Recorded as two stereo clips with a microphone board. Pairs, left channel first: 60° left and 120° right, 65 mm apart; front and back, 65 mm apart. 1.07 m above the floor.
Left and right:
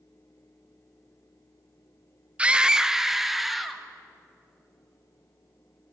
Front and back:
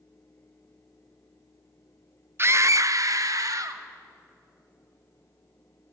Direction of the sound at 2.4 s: Straight behind.